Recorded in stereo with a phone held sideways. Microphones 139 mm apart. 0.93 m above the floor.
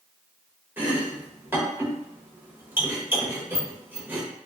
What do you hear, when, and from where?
0.8 s chopping: 15° right (ahead or behind), 0.8 m